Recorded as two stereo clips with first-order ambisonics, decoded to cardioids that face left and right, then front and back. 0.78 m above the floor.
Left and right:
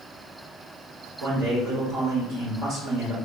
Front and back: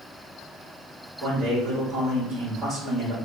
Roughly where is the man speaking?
Behind right.